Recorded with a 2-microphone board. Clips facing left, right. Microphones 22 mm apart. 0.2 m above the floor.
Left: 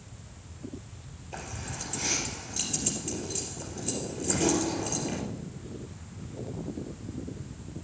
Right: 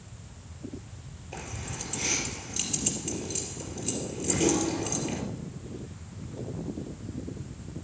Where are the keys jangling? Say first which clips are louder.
Even; 10° right (ahead or behind), 3.5 m.